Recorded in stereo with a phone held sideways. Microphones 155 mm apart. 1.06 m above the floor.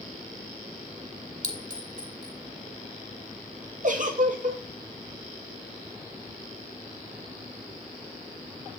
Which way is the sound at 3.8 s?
60° right (ahead or behind).